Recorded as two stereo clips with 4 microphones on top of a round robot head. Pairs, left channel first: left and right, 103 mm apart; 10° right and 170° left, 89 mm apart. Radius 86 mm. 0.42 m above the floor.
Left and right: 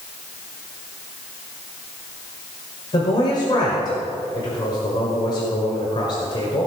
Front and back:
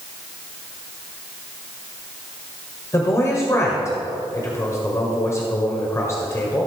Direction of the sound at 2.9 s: 45° left.